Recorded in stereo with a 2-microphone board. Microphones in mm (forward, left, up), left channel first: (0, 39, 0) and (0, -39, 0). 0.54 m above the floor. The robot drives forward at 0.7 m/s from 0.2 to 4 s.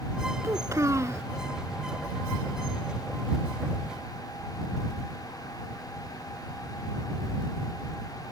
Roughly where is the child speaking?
Right.